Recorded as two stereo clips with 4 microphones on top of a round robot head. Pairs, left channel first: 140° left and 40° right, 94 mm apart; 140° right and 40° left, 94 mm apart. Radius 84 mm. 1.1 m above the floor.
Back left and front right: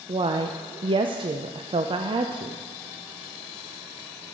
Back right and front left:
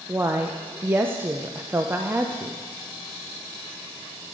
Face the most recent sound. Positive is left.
turn(degrees=-25)